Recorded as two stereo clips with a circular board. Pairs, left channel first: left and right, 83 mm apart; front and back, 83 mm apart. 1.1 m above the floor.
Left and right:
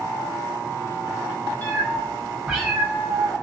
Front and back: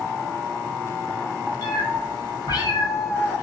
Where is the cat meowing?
25° left, 1.2 m; by 3.4 s 60° right, 0.7 m.